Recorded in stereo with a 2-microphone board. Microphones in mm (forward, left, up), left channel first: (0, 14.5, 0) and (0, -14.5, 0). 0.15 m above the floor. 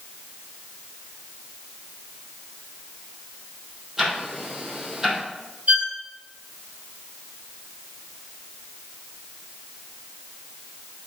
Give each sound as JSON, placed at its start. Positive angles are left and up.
{"t": 4.0, "sound": "ticking", "side_deg": -15, "distance_m": 4.0}
{"t": 5.7, "sound": "a violin", "side_deg": -60, "distance_m": 4.0}